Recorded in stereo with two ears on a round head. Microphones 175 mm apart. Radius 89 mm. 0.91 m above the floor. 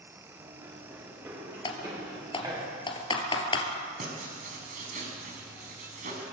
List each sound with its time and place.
0.3 s running footsteps: 10° right (ahead or behind), 9 m; by 2.6 s 15° right (ahead or behind), 7.5 m
1.6 s typing on a keyboard: 25° left (ahead or behind), 3 m
4.0 s writing: 40° right (ahead or behind), 5.5 m